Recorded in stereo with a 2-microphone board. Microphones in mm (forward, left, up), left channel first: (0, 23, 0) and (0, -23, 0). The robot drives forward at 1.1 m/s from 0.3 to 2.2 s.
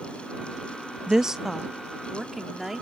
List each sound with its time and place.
1.1 s a woman speaking: 15° right (ahead or behind); by 2.8 s 5° right (ahead or behind)